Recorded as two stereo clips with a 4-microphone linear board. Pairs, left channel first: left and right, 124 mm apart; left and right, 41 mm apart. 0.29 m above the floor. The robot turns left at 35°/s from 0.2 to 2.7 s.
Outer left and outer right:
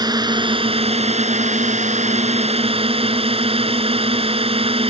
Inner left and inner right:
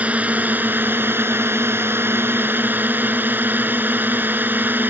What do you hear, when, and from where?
0.0 s a drone: 40° right; by 4.9 s 125° right